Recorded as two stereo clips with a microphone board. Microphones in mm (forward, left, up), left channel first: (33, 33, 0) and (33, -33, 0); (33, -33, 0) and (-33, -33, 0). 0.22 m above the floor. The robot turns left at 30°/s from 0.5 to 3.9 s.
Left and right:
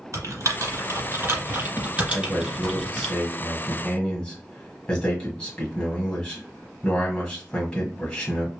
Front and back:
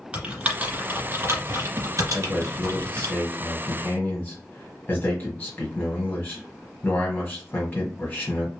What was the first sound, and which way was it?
Typing on a keyboard, 115° right.